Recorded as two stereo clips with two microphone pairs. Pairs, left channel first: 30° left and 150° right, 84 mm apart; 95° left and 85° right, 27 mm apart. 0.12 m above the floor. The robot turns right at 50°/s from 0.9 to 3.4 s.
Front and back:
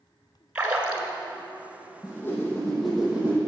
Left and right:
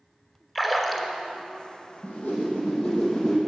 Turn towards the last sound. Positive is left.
turn(degrees=145)